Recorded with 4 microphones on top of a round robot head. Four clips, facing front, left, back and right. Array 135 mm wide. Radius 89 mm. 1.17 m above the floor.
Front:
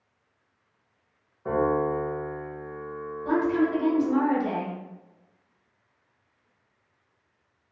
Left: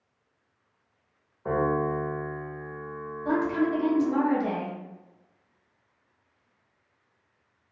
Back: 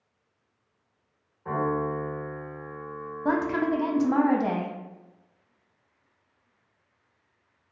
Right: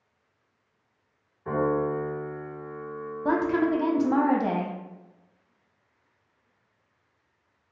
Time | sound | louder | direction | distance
1.4 | a piano | even, front 3 dB | 55° left | 1.1 m
3.2 | a woman speaking | right 2 dB, front 2 dB | 135° right | 0.5 m